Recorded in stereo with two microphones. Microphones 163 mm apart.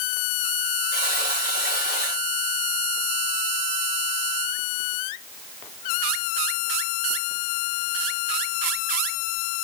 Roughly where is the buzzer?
Left.